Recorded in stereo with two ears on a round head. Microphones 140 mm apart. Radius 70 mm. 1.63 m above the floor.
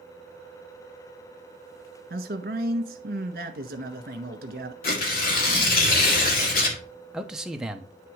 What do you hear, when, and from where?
2.1 s a man speaking: 60° right (ahead or behind), 1.4 m
4.8 s tearing paper: 60° left (ahead or behind), 2 m
7.1 s a man speaking: 5° right (ahead or behind), 0.8 m